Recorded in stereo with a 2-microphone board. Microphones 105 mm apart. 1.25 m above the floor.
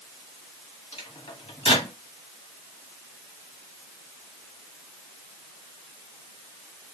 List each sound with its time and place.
0.9 s a microwave: 75° left (ahead or behind), 1.7 m